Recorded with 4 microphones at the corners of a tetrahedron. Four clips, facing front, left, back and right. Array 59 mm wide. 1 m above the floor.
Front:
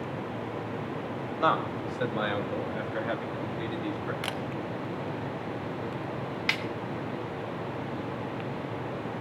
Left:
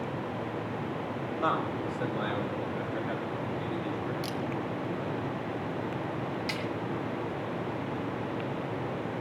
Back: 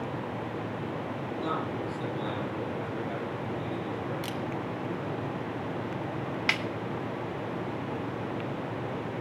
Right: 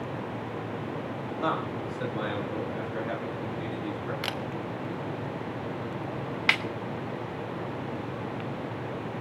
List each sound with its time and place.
1.4 s a man speaking: 10° left, 4 m; by 4.1 s 15° right, 6.5 m
4.2 s a camera shutter: 55° right, 0.9 m
6.5 s a snare drum: 95° right, 1.2 m